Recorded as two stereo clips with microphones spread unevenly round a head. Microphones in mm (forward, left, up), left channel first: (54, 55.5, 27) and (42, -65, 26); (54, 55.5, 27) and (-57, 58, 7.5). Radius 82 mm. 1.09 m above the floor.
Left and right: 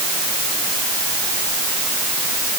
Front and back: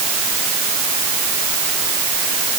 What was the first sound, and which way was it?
Only background noise.